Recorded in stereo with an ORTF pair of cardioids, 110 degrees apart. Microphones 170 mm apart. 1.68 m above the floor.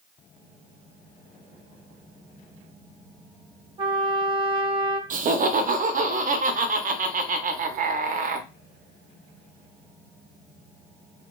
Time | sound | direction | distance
3.8 | a trumpet | 25° right | 1.0 m
5.1 | laughter | 50° right | 0.5 m